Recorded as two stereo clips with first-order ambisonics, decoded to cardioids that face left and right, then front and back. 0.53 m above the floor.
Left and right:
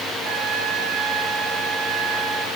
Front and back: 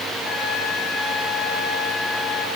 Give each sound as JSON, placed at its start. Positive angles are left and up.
{"t": 0.2, "sound": "a trumpet", "azimuth_deg": -55, "distance_m": 3.0}